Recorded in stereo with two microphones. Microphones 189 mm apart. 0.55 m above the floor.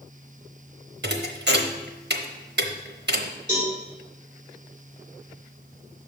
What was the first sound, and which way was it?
A thud, 80° right.